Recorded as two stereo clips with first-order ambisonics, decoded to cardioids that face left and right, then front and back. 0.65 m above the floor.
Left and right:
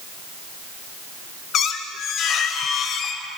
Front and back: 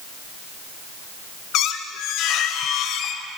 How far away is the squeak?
About 0.8 m.